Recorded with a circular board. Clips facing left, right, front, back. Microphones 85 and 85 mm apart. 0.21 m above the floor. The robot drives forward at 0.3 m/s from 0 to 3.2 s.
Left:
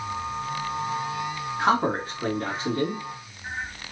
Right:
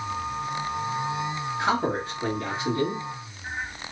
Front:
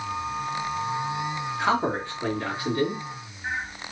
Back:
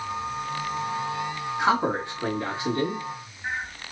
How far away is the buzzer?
No buzzer in this recording.